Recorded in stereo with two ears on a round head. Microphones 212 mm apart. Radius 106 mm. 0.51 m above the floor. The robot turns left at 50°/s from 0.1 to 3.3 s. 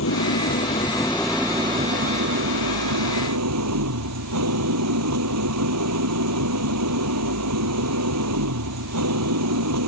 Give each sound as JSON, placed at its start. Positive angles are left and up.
{"t": 0.0, "sound": "an engine running", "azimuth_deg": 60}